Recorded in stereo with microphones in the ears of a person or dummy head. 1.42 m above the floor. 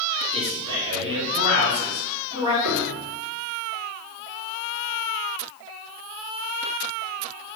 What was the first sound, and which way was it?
A man speaking, 30° right (ahead or behind).